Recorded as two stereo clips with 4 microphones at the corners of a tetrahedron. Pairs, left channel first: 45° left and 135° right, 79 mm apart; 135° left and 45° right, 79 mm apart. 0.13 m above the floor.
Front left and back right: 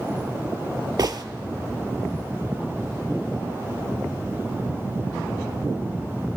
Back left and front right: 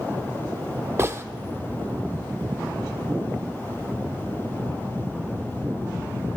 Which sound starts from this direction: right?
A gunshot, at 1.0 s.